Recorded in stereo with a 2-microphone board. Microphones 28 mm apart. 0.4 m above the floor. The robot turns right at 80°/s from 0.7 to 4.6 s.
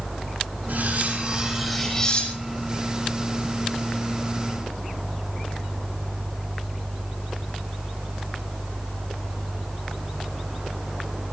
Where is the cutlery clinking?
90° right, 6.5 m; by 2.8 s 75° left, 6.5 m.